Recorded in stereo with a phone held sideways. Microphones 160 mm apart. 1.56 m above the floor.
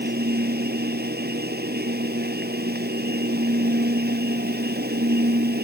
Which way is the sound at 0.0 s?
80° right.